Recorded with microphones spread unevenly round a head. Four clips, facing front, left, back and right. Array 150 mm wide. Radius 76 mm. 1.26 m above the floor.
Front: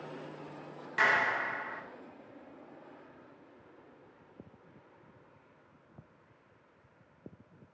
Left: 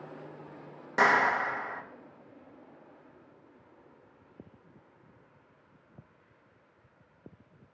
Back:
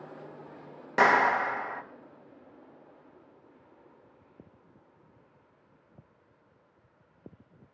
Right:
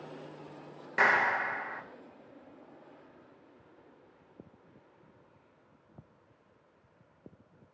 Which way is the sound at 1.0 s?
165° left.